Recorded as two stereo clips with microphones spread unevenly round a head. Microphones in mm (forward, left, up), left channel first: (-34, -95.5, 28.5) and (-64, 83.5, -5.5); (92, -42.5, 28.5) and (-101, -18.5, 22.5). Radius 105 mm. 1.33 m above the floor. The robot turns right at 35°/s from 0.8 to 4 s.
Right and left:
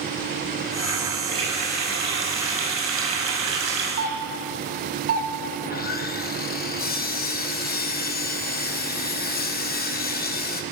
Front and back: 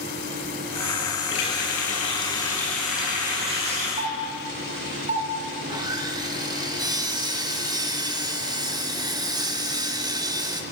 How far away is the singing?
No singing in this recording.